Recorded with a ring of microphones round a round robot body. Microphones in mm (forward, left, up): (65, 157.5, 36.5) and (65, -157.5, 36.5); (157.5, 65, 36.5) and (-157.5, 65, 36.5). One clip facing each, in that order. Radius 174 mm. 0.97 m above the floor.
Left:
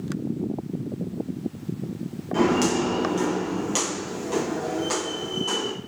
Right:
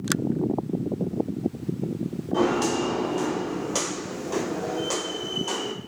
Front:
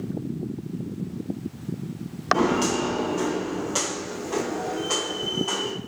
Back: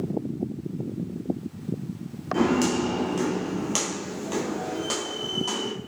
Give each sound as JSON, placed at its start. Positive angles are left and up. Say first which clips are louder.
{"t": 2.3, "sound": "footsteps", "louder": "left 2 dB, back 1 dB", "azimuth_deg": 115, "distance_m": 1.3}